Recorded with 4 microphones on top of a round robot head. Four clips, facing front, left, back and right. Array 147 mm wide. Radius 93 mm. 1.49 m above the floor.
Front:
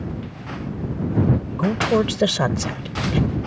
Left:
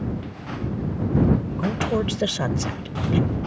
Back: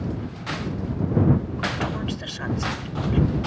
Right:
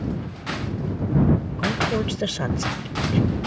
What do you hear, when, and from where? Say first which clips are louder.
1.6 s a woman speaking: even, front 8 dB; 5° left